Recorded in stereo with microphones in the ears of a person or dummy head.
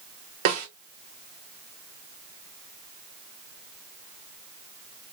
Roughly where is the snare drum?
Right.